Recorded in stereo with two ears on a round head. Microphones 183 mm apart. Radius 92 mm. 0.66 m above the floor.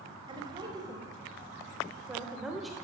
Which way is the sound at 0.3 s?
25° right (ahead or behind).